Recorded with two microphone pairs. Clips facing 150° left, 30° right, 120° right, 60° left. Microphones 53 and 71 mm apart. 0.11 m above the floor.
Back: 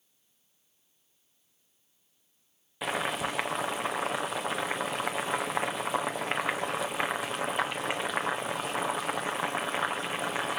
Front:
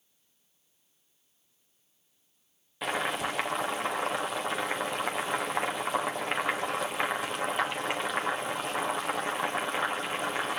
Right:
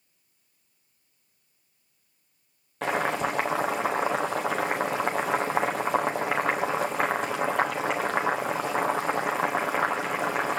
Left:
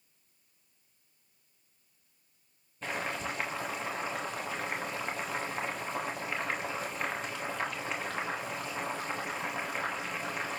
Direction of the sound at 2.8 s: 120° right.